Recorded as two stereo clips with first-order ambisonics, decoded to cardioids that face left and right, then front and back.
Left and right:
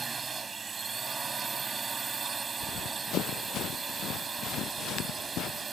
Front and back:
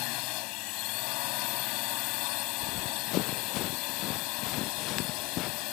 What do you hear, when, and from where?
0.0 s a drone: 20° right
2.6 s running footsteps: 40° left; by 5.7 s 45° left